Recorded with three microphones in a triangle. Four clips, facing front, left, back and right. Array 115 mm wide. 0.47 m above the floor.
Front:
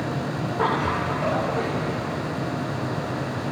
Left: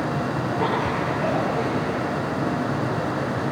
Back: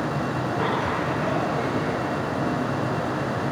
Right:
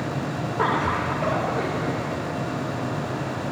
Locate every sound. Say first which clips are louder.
0.6 s laughter: right 3 dB, front 4 dB; 60° right, 6 m; by 2.2 s 50° right, 4.5 m